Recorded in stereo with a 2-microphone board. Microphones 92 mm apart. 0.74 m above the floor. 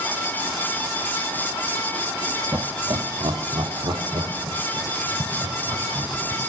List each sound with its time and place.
2.5 s laughter: 40° right (ahead or behind), 1.0 m; by 6.4 s 75° right (ahead or behind), 4.5 m